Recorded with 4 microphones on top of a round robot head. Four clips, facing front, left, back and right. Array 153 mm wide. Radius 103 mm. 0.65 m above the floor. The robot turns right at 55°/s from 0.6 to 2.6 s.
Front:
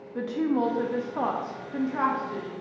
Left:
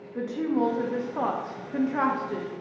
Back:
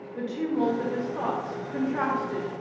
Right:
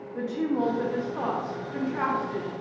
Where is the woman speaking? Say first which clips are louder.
Left 1 dB, front 1 dB; 15° left, 0.5 m; by 2.5 s 120° left, 0.5 m.